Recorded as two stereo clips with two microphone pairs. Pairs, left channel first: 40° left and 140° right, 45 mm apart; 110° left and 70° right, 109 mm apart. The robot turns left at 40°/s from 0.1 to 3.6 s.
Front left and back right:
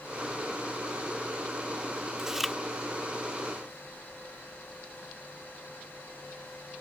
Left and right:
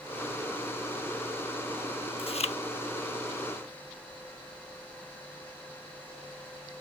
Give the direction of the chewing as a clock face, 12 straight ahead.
7 o'clock.